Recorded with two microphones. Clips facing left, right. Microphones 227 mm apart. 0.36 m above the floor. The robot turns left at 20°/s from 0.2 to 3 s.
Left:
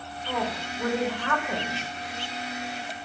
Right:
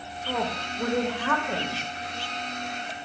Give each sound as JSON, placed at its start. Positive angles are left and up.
{"t": 0.3, "sound": "a woman speaking", "side_deg": -15, "distance_m": 0.9}